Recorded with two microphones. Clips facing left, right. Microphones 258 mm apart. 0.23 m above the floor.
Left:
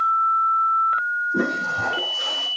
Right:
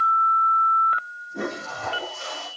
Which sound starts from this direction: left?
A toilet flushing, at 1.3 s.